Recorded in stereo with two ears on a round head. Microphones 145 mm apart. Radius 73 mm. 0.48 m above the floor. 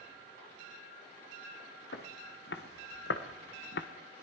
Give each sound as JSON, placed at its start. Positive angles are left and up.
{"t": 1.9, "sound": "footsteps", "side_deg": 75, "distance_m": 4.5}